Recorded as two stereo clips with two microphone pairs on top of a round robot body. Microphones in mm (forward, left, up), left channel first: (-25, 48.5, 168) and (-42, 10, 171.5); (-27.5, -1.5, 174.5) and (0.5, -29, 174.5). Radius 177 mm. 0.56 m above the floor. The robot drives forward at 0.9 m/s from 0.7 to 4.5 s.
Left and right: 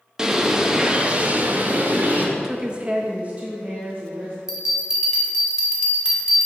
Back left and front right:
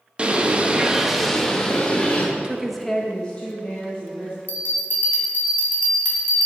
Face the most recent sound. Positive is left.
turn(degrees=170)